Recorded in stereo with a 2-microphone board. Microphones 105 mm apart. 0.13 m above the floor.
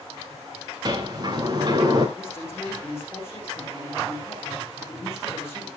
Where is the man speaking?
25° left (ahead or behind), 7 m.